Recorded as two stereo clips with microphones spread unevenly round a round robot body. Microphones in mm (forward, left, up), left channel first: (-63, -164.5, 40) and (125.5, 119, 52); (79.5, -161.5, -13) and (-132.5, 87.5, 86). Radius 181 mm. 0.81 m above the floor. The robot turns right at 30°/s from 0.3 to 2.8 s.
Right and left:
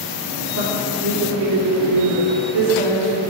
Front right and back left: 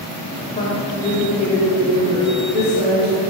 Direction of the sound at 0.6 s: 10° left.